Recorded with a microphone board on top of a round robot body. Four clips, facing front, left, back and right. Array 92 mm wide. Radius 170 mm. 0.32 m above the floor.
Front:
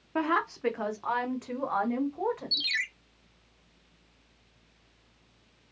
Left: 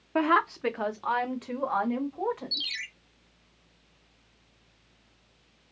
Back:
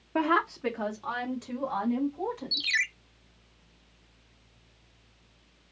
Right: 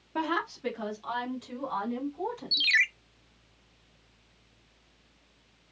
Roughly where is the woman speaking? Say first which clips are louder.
Left 7 dB, back 2 dB; left.